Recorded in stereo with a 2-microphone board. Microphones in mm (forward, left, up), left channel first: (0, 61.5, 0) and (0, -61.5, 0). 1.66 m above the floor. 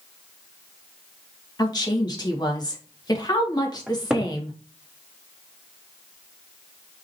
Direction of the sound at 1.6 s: 35° left (ahead or behind).